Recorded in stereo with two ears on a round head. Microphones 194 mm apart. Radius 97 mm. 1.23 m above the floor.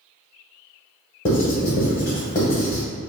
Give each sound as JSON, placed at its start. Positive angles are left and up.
{"t": 1.2, "sound": "writing", "side_deg": 35, "distance_m": 1.2}